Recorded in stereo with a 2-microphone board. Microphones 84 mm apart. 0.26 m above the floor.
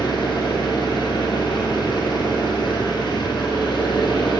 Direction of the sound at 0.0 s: 70° left (ahead or behind).